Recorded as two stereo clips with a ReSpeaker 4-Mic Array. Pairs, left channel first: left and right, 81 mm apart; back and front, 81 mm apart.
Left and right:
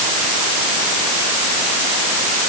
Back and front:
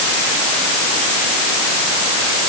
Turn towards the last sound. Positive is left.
No sound to turn to.